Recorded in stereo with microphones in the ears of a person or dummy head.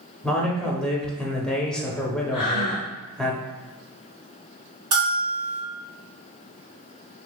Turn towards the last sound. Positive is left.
turn(degrees=-40)  # may be behind; listen again after turning